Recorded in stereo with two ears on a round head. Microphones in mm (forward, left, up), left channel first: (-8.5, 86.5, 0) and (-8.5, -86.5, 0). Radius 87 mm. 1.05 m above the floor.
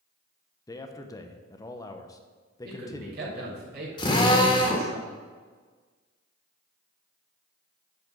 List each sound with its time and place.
0.7 s a man speaking: 20° left (ahead or behind), 0.8 m
2.6 s a man speaking: 55° right (ahead or behind), 4 m
4.0 s a drill: 25° left (ahead or behind), 2.0 m